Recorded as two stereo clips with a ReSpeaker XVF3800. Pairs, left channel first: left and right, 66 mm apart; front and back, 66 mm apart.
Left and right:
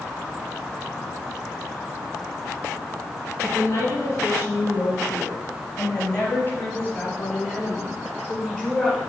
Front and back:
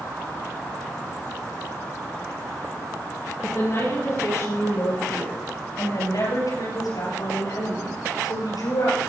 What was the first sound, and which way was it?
A woman speaking, 50° left.